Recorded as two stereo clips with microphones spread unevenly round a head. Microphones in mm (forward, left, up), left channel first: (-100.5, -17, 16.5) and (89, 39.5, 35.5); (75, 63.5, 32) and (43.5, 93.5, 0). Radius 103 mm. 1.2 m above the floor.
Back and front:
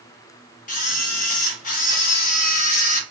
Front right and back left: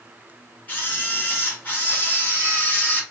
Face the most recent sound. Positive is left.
turn(degrees=-110)